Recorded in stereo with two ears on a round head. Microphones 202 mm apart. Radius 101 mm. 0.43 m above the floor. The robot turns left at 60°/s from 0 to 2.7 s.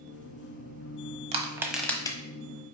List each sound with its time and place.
1.3 s crushing: 30° right (ahead or behind), 1.1 m; by 2.2 s 20° left (ahead or behind), 1.1 m